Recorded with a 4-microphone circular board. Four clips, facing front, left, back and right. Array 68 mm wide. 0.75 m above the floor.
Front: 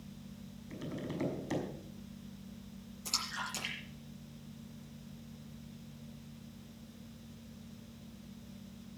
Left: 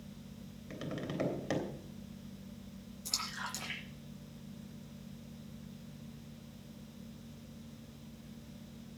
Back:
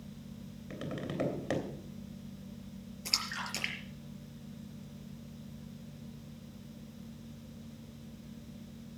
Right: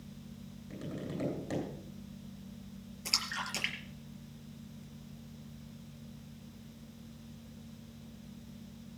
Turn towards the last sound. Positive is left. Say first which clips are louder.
# right 3 dB, back 1 dB
turn(degrees=-125)